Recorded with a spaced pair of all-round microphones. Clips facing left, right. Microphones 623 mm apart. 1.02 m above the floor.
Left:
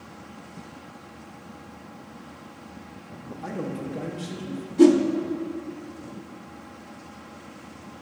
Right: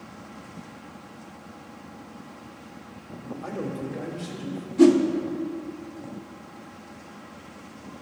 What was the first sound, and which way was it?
A man speaking, 45° left (ahead or behind).